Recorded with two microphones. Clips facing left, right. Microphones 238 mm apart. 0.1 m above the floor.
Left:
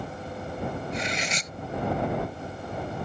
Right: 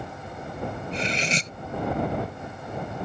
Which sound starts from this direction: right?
Cutlery clinking, at 0.9 s.